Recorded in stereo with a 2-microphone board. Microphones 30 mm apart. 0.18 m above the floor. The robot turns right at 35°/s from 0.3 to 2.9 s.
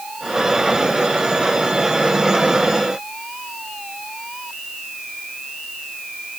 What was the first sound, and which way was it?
Only background noise.